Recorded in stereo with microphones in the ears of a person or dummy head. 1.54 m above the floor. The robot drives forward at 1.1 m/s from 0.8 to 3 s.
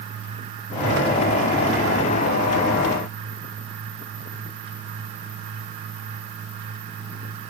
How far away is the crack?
No crack in this recording.